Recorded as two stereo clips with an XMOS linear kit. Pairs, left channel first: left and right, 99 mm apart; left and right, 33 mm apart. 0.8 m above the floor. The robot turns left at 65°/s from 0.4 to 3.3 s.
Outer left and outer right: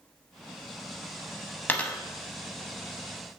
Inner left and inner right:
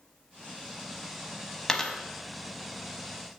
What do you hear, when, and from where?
1.7 s a dropped coin: 20° left (ahead or behind), 0.8 m; by 2.0 s 5° left (ahead or behind), 0.8 m